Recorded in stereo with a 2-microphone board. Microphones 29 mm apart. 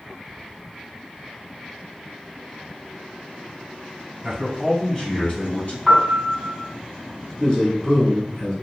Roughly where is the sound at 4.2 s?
Centre.